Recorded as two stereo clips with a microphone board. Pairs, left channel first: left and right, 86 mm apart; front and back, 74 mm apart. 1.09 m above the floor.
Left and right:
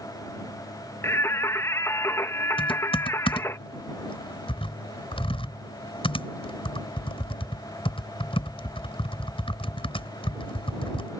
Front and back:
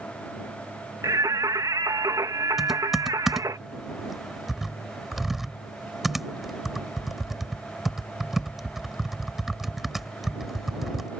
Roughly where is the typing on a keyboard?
Left.